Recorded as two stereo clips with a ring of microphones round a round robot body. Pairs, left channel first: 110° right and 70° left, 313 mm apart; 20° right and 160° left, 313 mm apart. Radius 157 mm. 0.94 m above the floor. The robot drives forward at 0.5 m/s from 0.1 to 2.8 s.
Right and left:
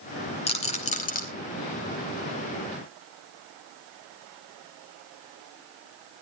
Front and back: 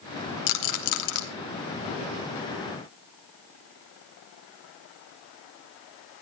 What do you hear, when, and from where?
0.5 s a rattle: 40° right, 2 m; by 1.2 s 50° right, 1.9 m